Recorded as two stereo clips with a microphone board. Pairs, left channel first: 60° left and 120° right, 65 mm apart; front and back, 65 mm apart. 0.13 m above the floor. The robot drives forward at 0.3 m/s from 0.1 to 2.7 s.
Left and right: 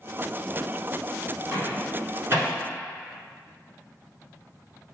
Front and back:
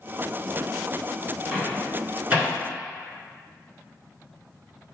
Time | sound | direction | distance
1.5 | a microwave | 110° right | 1.6 m